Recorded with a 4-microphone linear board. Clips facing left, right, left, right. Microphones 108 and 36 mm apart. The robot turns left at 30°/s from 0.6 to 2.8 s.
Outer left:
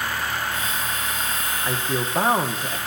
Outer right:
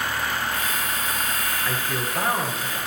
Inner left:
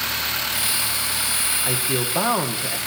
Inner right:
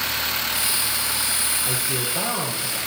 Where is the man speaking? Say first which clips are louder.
Outer left 2 dB, inner left 2 dB; 165° left, 1.0 m; by 2.8 s 130° left, 1.0 m.